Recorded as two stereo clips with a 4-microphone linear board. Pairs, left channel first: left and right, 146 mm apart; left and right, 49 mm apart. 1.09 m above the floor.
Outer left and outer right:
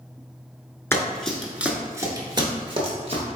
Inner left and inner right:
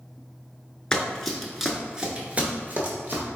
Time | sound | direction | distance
0.9 | running footsteps | 15° left (ahead or behind) | 1.0 m